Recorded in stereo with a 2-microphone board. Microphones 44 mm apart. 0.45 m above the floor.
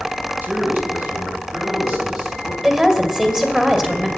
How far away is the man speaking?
About 2.5 m.